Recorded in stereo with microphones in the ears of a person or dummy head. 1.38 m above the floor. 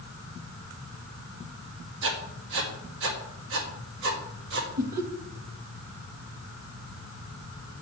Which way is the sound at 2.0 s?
70° right (ahead or behind).